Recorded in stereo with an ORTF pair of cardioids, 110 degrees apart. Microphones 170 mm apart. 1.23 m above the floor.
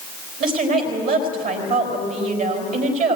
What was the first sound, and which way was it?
A woman speaking, 55° right.